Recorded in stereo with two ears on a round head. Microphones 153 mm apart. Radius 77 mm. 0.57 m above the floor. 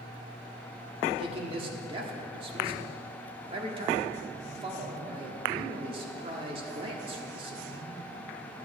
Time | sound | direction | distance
1.2 | a man speaking | 30° right (ahead or behind) | 1.3 m